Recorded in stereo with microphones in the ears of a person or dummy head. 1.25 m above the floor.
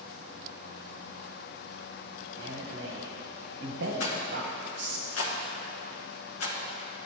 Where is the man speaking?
65° right (ahead or behind), 1.0 m.